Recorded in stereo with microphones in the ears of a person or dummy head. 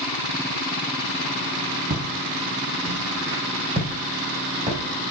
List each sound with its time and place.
1.9 s footsteps: 35° right (ahead or behind), 3.5 m; by 4.8 s 40° right (ahead or behind), 8 m